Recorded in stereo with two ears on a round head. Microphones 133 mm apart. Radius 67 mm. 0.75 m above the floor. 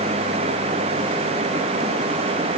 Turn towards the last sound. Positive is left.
No sound to turn to.